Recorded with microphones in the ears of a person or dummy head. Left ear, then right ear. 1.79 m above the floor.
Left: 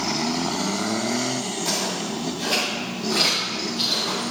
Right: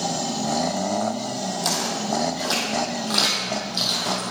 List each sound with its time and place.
1.6 s footsteps: 40° right (ahead or behind), 3.5 m; by 4.3 s 60° right (ahead or behind), 4.5 m